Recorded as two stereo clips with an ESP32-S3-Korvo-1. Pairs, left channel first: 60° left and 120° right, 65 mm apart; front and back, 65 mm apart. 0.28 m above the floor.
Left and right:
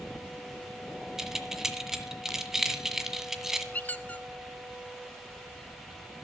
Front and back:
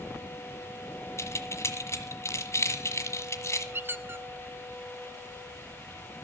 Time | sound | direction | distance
1.2 | keys jangling | 35° right | 1.4 m
3.7 | a squeak | 125° left | 0.6 m